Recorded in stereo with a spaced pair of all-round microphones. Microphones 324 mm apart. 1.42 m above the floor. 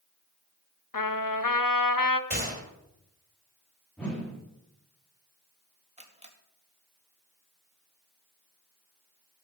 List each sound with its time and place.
0.9 s a trumpet: 80° left, 0.8 m
2.3 s a gunshot: 30° right (ahead or behind), 4 m
4.0 s a whoosh: 5° left (ahead or behind), 4 m
6.0 s a camera shutter: 20° right (ahead or behind), 1.8 m